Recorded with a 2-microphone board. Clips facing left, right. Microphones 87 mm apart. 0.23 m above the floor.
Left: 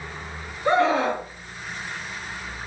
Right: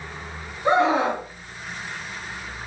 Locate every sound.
0.7 s a scream: 20° right (ahead or behind), 2.5 m